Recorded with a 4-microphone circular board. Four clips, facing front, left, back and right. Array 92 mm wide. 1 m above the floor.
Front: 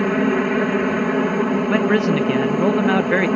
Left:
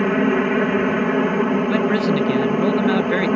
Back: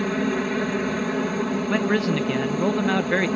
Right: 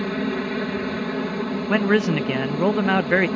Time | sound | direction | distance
0.0 | a helicopter | 50° left | ?
1.7 | a man speaking | 55° right | ?